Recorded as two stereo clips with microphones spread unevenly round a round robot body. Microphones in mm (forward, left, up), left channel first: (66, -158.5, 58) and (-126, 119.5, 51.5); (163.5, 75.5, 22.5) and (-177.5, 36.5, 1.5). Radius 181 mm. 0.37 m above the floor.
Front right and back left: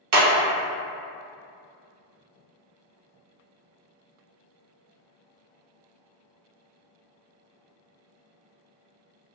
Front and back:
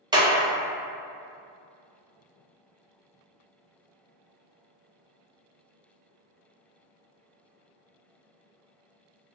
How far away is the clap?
About 0.8 m.